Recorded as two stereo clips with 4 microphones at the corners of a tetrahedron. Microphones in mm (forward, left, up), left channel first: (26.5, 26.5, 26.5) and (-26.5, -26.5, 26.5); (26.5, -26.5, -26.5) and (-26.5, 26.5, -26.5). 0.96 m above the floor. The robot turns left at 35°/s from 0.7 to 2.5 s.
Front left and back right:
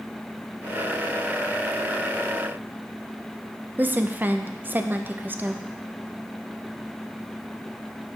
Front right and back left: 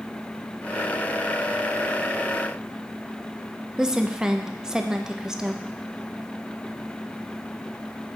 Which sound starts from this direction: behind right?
A woman speaking, at 3.8 s.